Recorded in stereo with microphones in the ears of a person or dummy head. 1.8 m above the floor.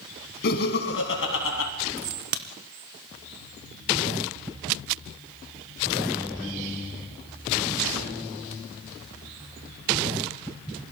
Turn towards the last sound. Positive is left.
turn(degrees=-45)  # may be behind; listen again after turning